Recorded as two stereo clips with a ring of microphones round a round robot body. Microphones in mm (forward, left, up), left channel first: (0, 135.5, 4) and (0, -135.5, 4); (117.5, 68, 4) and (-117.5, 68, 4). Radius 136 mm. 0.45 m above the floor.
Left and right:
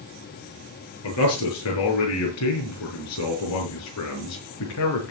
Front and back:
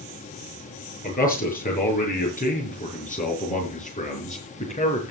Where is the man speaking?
55° left, 7 m; by 5.1 s 65° left, 5 m.